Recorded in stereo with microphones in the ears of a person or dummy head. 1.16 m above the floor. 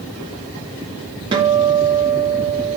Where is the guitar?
30° right (ahead or behind), 1.4 m.